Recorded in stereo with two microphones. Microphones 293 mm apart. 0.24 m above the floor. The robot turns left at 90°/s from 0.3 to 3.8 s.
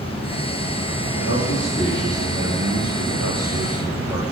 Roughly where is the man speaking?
Ahead left.